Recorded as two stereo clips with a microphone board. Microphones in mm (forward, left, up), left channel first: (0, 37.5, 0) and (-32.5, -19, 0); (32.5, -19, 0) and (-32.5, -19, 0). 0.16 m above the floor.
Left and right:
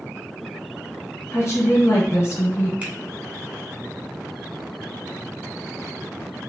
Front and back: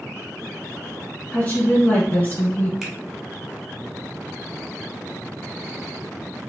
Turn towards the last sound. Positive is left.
turn(degrees=-105)